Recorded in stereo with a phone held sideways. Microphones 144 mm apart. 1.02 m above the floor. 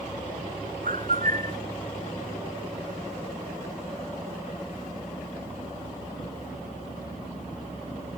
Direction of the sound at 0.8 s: 75° right (ahead or behind).